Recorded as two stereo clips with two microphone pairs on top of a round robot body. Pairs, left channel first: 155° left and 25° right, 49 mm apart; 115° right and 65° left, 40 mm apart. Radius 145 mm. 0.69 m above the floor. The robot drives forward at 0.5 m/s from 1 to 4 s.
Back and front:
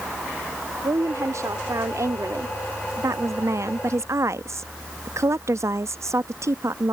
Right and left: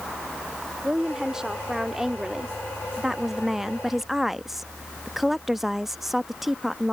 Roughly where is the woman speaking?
Ahead.